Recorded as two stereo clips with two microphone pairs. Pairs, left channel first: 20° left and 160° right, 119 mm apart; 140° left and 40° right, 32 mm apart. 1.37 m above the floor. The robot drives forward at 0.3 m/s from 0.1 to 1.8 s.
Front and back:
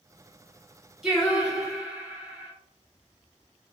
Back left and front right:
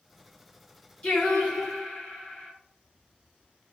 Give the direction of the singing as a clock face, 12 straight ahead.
8 o'clock.